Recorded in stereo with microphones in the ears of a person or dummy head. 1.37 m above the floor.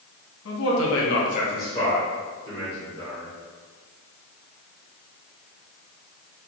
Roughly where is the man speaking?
Left.